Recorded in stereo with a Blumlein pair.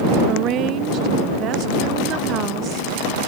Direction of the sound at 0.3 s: 35° right.